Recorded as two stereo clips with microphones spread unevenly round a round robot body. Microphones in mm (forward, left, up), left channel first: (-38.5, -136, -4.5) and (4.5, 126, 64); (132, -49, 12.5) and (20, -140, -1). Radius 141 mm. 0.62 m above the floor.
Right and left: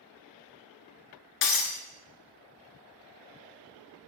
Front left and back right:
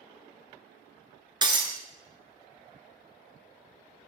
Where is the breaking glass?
80° right, 1.1 m.